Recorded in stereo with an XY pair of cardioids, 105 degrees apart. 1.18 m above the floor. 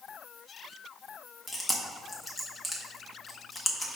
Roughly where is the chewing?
Ahead.